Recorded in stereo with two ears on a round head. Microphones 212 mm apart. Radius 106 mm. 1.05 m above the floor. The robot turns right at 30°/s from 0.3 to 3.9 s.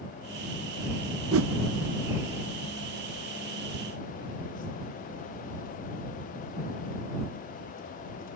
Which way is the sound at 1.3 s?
60° right (ahead or behind).